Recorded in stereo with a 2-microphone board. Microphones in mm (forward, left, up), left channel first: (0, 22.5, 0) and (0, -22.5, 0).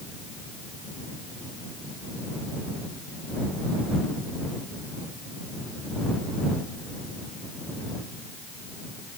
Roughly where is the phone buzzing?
No phone buzzing in this recording.